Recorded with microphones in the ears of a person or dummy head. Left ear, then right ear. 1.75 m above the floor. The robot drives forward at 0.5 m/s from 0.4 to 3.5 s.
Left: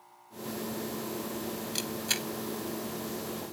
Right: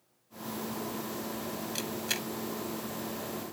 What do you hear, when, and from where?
1.8 s a camera shutter: 5° left (ahead or behind)